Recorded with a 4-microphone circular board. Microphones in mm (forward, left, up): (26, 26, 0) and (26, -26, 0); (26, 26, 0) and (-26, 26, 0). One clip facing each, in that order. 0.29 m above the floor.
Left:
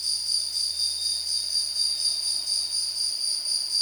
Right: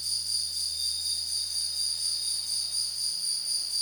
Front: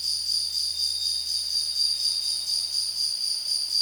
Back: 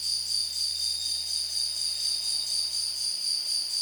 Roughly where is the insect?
Left.